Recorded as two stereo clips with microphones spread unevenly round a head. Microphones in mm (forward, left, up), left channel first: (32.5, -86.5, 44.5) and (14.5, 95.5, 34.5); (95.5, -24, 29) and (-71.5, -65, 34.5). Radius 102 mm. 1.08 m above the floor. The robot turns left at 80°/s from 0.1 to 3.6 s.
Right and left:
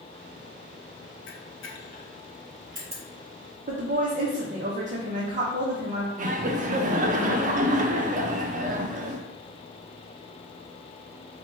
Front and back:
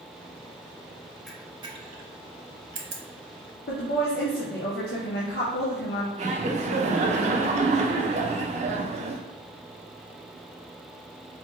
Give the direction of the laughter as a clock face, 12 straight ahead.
7 o'clock.